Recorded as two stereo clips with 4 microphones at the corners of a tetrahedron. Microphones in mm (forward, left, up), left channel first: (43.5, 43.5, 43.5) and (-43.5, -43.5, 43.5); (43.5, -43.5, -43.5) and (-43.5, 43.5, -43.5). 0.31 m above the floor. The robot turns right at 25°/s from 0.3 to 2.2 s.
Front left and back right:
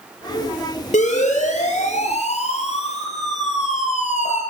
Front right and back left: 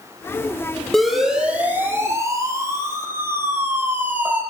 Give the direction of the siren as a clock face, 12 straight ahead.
11 o'clock.